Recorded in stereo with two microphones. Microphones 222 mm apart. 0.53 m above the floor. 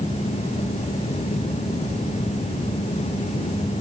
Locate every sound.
Only background noise.